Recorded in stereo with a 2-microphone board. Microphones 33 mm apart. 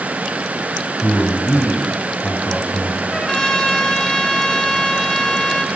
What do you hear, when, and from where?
1.0 s a man speaking: 40° left (ahead or behind), 5 m
3.1 s a trumpet: 20° left (ahead or behind), 3 m